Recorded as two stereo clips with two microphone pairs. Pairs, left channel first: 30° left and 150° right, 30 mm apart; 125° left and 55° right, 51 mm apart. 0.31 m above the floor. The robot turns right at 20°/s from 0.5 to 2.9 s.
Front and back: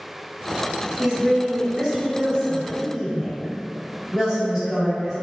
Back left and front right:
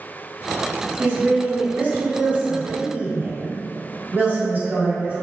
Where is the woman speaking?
110° right, 1.7 m; by 5.2 s 75° right, 1.7 m.